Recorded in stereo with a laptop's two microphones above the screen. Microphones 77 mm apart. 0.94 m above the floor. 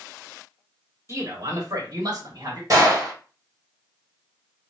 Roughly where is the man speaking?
Right.